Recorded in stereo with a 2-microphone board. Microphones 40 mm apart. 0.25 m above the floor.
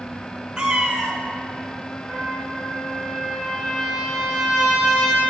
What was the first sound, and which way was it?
A cat meowing, 15° right (ahead or behind).